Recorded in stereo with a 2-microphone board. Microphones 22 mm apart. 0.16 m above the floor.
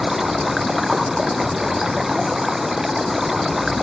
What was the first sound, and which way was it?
Running water, 10° right (ahead or behind).